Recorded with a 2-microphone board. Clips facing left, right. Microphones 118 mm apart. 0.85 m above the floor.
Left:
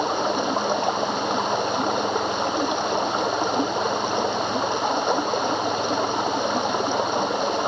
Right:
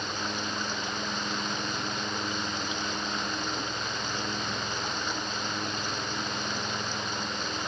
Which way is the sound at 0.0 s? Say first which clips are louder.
Left 12 dB; 70° left (ahead or behind).